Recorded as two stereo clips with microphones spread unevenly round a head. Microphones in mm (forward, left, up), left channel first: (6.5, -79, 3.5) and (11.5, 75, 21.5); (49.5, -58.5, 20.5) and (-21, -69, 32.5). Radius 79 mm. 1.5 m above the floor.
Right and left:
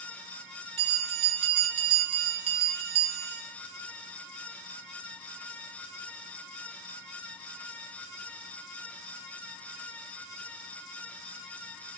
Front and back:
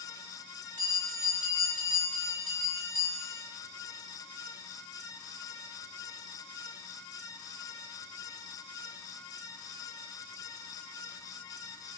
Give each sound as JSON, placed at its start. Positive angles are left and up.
{"t": 0.8, "sound": "a bell", "azimuth_deg": 140, "distance_m": 1.6}